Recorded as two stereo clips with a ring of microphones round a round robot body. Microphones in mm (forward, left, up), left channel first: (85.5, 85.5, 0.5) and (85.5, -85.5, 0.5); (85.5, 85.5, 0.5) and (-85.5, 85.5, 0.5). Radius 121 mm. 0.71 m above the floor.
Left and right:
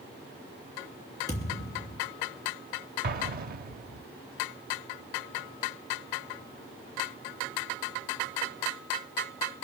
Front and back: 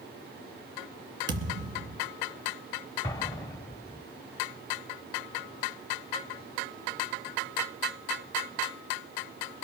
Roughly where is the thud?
Behind.